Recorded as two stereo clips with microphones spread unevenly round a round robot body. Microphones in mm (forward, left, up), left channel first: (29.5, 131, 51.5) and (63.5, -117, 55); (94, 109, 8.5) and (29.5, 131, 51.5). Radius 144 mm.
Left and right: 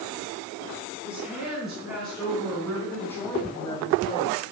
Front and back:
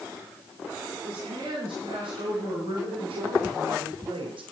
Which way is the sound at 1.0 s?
170° right.